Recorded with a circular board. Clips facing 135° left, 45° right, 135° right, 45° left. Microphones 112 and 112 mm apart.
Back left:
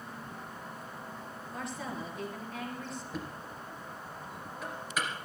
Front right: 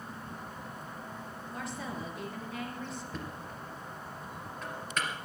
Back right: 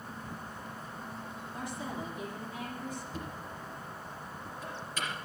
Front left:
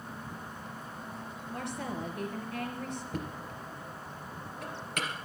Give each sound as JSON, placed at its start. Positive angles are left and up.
{"t": 1.5, "sound": "a woman speaking", "azimuth_deg": 45, "distance_m": 4.0}
{"t": 3.1, "sound": "knocking", "azimuth_deg": 55, "distance_m": 3.0}